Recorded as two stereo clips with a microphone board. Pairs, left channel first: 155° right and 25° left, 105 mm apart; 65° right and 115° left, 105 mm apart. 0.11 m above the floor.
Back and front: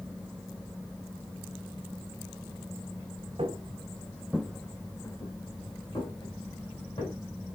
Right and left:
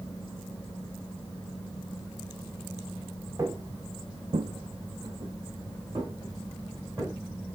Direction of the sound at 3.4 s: 55° left.